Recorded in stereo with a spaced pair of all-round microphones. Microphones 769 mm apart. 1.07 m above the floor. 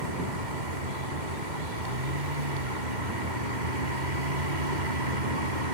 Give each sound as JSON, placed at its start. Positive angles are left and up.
{"t": 0.0, "sound": "a vehicle", "side_deg": -75}